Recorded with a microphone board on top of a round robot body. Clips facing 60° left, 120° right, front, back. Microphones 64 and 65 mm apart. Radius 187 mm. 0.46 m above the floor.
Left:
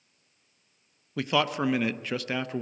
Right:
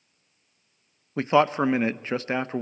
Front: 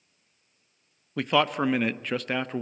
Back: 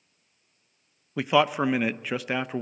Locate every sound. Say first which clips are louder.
1.2 s a man speaking: right 6 dB, back 2 dB; 105° right, 0.7 m